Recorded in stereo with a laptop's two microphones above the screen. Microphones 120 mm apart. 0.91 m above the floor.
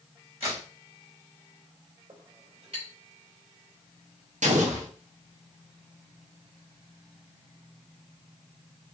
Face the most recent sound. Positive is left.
turn(degrees=-80)